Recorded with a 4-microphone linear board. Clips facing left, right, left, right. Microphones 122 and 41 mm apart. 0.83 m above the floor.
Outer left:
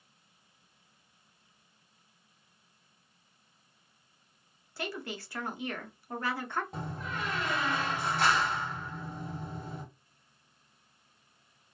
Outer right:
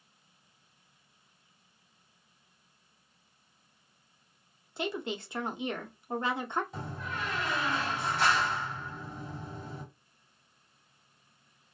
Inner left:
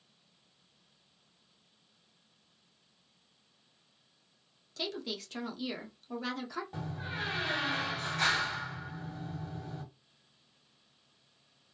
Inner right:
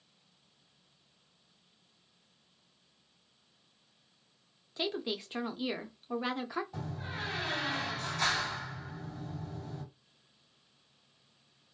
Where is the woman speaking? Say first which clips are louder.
Outer right 4 dB, inner right 3 dB; 20° right (ahead or behind), 0.5 m.